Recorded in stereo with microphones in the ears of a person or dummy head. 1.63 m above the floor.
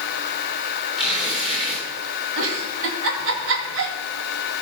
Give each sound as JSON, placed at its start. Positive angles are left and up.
{"t": 1.0, "sound": "tearing paper", "side_deg": 0, "distance_m": 6.5}
{"t": 2.4, "sound": "a giggle", "side_deg": -80, "distance_m": 2.5}